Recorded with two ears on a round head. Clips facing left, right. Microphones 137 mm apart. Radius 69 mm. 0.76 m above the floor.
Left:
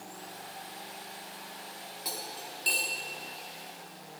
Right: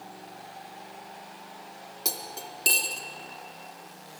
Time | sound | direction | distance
2.0 | cutlery clinking | 55° right (ahead or behind) | 1.0 m